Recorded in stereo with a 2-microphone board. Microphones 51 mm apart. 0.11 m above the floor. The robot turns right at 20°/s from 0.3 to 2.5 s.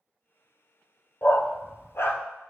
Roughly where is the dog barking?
Left.